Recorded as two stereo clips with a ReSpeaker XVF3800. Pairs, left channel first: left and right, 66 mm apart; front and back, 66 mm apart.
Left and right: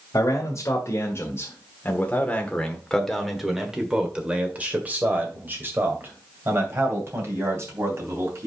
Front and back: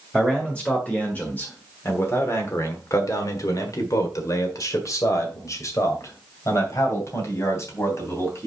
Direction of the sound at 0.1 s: 75° left.